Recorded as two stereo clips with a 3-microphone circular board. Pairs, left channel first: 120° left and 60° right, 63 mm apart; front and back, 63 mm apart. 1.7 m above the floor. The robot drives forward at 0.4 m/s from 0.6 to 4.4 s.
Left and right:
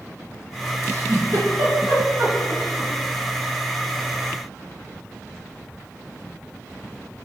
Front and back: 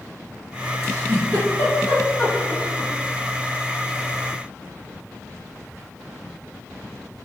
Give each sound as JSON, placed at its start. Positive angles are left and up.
{"t": 0.8, "sound": "a giggle", "azimuth_deg": -50, "distance_m": 1.9}